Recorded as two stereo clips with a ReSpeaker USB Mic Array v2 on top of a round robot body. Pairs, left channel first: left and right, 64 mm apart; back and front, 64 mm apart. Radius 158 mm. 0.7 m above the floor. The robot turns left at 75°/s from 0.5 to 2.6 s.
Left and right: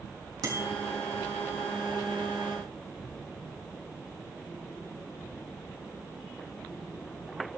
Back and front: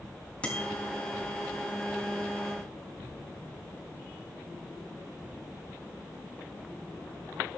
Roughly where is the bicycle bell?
Right.